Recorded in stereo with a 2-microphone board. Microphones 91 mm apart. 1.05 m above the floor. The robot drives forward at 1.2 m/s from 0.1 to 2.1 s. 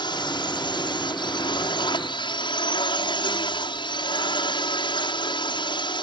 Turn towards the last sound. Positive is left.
turn(degrees=60)  # may be behind; listen again after turning